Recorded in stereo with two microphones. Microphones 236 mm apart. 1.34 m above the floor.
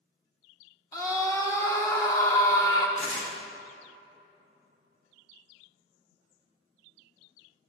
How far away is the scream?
About 1.4 m.